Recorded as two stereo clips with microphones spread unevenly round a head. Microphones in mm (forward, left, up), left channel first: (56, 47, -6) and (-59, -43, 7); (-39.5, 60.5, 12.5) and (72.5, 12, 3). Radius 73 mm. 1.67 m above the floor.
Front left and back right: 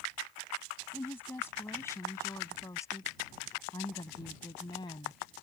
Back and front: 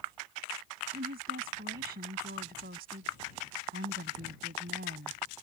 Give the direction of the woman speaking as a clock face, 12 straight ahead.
1 o'clock.